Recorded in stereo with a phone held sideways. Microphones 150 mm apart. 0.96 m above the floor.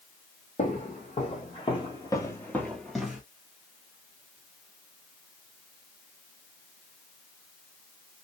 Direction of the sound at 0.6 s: 55° left (ahead or behind).